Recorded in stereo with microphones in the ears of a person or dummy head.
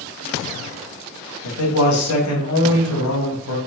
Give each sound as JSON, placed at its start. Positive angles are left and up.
{"t": 1.4, "sound": "a man speaking", "side_deg": 90, "distance_m": 3.5}